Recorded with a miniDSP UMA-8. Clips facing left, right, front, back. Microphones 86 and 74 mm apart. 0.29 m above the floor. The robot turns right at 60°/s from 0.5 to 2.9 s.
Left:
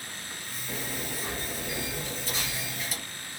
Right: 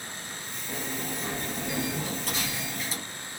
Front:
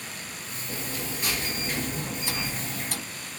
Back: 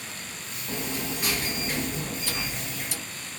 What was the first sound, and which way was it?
A sliding door, 165° right.